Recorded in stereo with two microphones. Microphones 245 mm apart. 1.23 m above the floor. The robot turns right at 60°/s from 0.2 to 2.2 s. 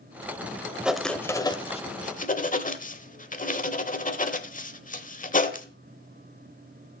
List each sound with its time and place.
0.8 s writing: 5° right (ahead or behind), 1.1 m; by 5.7 s 35° left (ahead or behind), 1.1 m